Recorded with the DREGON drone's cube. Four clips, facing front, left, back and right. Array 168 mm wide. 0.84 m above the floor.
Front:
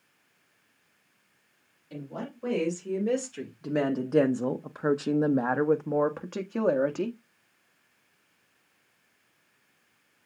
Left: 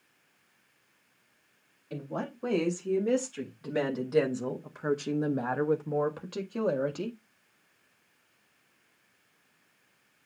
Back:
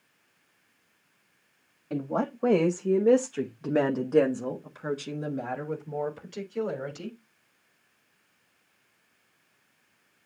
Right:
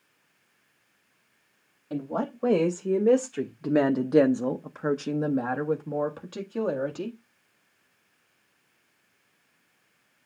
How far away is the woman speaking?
About 1.7 m.